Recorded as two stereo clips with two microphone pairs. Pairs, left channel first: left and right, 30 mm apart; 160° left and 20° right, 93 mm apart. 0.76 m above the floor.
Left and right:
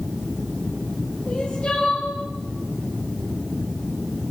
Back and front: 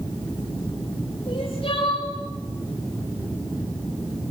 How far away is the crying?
About 9 m.